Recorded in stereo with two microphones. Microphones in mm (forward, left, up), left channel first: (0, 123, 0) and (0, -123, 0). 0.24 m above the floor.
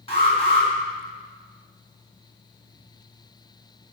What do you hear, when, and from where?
0.1 s an alarm: 25° left (ahead or behind), 2.5 m